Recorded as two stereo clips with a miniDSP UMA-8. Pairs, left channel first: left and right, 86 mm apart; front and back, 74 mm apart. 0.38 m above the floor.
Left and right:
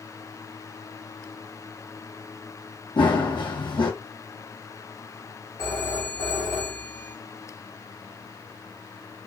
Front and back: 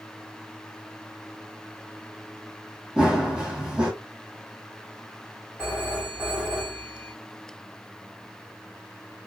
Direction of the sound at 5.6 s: 115° left.